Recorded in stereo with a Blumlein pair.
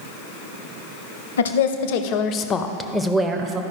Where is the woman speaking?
65° left, 0.9 m; by 3.6 s 25° right, 0.8 m.